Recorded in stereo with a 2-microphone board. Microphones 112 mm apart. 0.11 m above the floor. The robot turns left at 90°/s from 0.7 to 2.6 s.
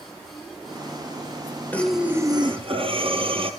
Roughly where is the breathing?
Ahead.